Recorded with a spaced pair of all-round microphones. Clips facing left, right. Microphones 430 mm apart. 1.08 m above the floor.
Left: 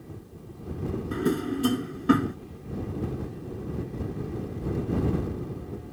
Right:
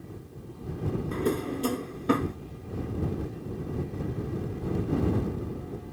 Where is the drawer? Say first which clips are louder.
Left 3 dB; 30° left (ahead or behind).